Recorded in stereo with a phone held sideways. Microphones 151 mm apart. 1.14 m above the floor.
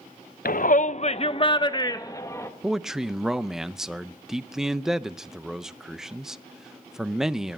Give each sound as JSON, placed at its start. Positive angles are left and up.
{"t": 0.5, "sound": "a shout", "side_deg": 75, "distance_m": 0.6}
{"t": 2.6, "sound": "a man speaking", "side_deg": -5, "distance_m": 0.6}